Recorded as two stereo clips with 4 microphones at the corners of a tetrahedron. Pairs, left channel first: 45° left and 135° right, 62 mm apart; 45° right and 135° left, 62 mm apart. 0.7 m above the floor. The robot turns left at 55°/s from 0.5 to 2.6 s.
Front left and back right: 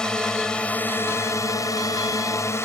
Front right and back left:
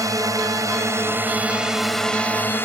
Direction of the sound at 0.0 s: 120° left.